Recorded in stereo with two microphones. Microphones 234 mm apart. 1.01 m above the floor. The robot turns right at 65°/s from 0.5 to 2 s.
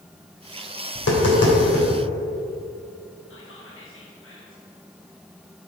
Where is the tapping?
70° left (ahead or behind), 2.5 m; by 1.9 s 50° left (ahead or behind), 2.5 m.